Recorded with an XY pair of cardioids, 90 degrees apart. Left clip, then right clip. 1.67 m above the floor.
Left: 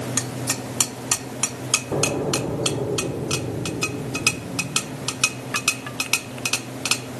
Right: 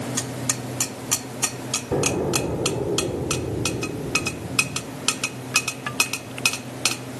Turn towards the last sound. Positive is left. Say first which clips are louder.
# right 4 dB
turn(degrees=-30)